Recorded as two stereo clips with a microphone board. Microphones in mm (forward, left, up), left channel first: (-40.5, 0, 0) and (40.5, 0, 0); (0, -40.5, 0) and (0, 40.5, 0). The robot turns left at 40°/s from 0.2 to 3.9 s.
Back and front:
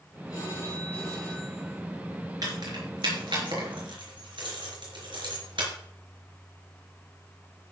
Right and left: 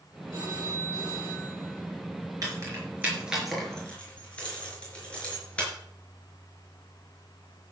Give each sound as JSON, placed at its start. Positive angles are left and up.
{"t": 0.3, "sound": "a phone ringing", "azimuth_deg": 135, "distance_m": 6.5}
{"t": 2.4, "sound": "keys jangling", "azimuth_deg": 45, "distance_m": 5.0}